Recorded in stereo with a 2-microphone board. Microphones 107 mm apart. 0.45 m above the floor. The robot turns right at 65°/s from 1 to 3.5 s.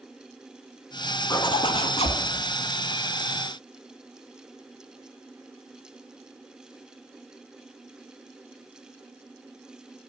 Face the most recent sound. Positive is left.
turn(degrees=180)